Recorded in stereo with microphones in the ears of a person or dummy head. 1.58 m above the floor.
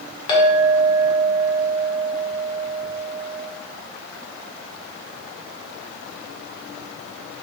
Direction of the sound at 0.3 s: 30° left (ahead or behind).